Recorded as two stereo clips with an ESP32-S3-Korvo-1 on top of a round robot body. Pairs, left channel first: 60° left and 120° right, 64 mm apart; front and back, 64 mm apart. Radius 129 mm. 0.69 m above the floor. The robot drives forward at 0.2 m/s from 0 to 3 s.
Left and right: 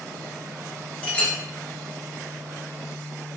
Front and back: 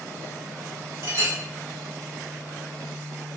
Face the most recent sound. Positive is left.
turn(degrees=140)